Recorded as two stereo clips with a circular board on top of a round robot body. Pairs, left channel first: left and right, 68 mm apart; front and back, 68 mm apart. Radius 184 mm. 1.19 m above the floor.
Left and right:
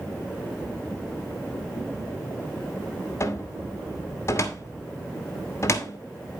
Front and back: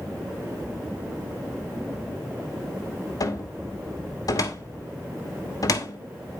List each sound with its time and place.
3.2 s a cupboard door: 35° left, 1.4 m